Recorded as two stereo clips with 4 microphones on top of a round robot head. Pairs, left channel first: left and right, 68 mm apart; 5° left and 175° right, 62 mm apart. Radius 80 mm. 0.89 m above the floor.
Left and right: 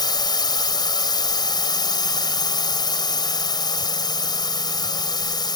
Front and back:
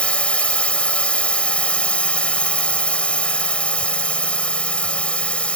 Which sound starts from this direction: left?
A drone, at 0.0 s.